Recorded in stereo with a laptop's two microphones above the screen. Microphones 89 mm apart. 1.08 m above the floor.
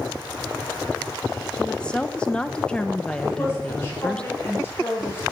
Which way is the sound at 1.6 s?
10° left (ahead or behind).